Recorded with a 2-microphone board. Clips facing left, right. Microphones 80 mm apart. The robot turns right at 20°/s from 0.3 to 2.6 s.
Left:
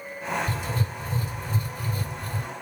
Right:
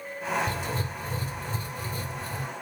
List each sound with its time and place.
0.5 s writing: 75° right, 2 m; by 2.5 s 35° right, 2 m